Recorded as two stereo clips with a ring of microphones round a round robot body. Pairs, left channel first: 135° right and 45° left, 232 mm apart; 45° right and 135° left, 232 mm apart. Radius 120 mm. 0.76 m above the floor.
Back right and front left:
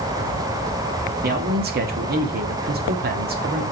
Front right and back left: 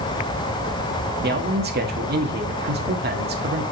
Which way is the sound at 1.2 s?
90° left.